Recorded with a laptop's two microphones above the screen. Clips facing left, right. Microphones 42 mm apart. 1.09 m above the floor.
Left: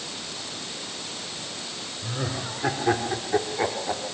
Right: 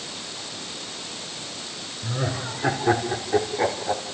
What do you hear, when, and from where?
2.0 s laughter: 5° right (ahead or behind), 3.5 m; by 4.0 s 5° left (ahead or behind), 2.5 m